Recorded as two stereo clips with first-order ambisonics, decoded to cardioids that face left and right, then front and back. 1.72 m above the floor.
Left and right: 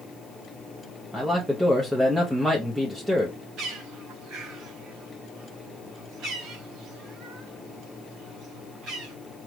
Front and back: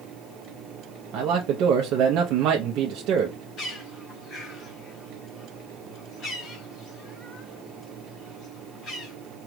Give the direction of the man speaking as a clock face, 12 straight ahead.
6 o'clock.